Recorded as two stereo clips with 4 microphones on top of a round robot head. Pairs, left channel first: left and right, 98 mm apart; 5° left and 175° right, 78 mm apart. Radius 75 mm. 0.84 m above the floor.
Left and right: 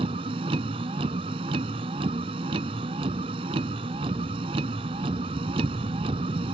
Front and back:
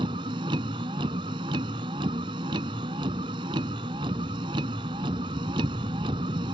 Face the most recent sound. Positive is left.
turn(degrees=-135)